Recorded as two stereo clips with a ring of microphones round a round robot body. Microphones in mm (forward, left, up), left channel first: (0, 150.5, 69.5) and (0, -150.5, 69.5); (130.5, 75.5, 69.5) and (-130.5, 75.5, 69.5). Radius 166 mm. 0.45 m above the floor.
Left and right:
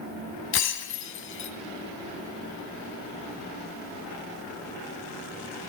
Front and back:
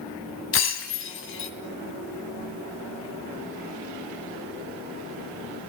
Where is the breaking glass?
40° left, 3 m.